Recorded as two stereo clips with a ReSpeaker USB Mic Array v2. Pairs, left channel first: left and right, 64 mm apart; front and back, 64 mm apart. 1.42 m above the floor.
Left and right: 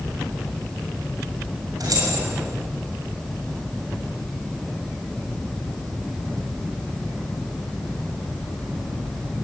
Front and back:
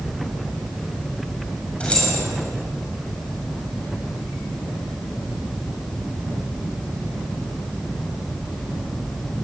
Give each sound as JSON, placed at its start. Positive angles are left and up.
{"t": 1.8, "sound": "keys jangling", "azimuth_deg": -75, "distance_m": 6.5}